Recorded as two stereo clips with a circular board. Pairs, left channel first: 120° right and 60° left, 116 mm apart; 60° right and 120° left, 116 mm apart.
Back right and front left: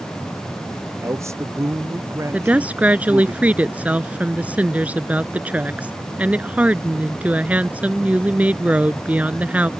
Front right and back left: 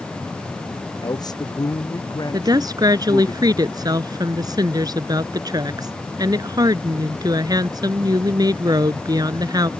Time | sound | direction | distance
1.0 | a man speaking | 5° right | ?
2.3 | a woman speaking | 130° left | ?